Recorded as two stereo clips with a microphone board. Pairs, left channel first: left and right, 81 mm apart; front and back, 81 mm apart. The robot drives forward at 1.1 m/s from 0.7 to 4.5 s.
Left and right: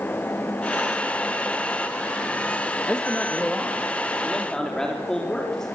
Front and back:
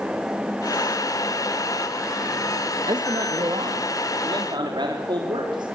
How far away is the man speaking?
About 2.0 m.